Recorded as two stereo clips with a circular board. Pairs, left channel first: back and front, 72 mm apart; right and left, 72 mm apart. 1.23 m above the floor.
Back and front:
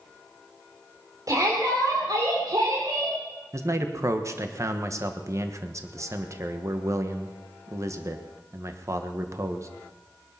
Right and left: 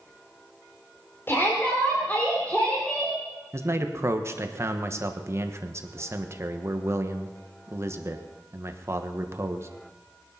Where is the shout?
35° right, 3 m; by 3.2 s 10° right, 3 m.